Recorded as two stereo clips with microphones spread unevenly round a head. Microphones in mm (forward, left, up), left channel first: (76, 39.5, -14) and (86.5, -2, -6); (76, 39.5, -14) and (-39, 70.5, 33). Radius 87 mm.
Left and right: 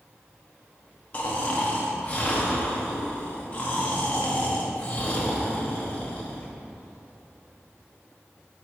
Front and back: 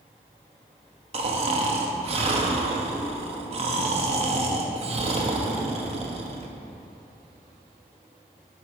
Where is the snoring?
125° left, 0.7 m.